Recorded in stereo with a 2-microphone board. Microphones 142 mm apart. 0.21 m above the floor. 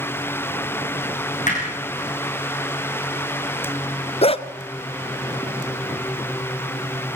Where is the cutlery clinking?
No cutlery clinking in this recording.